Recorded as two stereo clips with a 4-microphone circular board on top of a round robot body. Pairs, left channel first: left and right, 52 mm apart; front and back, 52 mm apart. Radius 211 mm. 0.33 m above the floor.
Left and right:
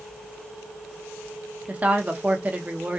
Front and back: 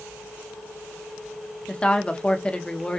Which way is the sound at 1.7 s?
55° right.